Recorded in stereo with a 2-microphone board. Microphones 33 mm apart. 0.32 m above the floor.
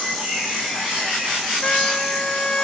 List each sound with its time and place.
1.6 s a trumpet: 30° left (ahead or behind)